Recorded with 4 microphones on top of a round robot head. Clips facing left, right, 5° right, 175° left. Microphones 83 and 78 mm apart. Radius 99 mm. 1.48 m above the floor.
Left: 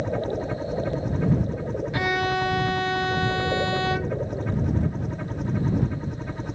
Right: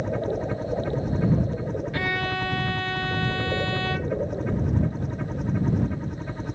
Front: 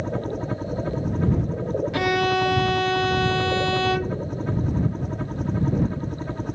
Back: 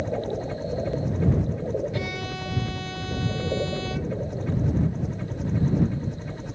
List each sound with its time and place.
0.0 s a helicopter: straight ahead
1.9 s a violin: 15° left